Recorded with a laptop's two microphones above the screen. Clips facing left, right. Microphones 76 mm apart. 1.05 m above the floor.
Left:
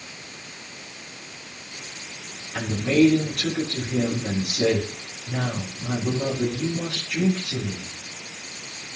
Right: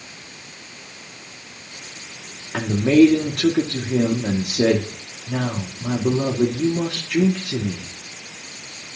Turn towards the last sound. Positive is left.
turn(degrees=-65)  # may be behind; listen again after turning